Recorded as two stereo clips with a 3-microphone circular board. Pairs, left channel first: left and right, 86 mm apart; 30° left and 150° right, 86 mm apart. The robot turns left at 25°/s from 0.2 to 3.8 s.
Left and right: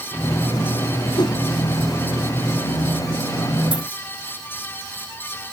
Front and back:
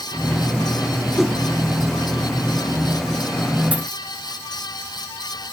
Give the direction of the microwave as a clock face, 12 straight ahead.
I don't hear a microwave.